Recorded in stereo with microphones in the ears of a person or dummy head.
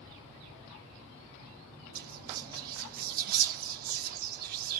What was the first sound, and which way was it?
Whispering, 50° right (ahead or behind).